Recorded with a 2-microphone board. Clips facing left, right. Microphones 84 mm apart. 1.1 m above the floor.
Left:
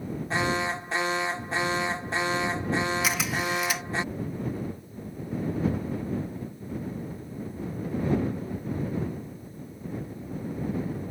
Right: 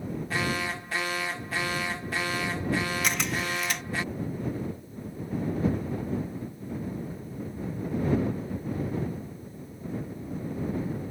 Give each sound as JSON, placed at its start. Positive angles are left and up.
{"t": 0.3, "sound": "an alarm", "side_deg": 25}
{"t": 3.0, "sound": "a camera shutter", "side_deg": 5}